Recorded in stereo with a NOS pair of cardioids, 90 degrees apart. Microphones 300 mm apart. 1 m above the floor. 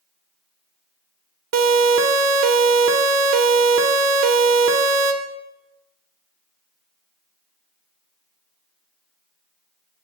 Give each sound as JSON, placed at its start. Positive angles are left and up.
{"t": 1.5, "sound": "a siren", "azimuth_deg": -60, "distance_m": 4.0}